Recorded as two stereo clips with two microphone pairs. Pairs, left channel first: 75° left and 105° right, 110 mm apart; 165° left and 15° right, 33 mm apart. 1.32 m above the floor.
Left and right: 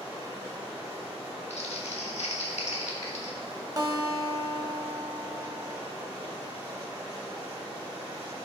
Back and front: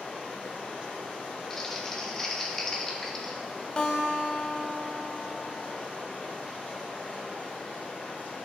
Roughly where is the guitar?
Behind right.